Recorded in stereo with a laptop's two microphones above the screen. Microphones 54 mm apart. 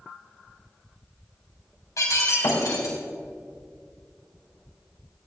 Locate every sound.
2.0 s breaking glass: 75° left (ahead or behind), 3.5 m